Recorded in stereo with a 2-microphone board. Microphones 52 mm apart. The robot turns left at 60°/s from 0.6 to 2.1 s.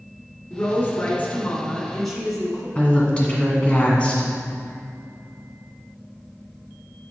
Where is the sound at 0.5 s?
95° left, 1.9 m; by 2.6 s 5° left, 1.9 m.